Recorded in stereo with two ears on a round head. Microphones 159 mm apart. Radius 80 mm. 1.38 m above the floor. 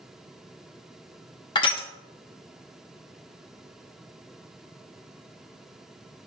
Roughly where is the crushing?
Left.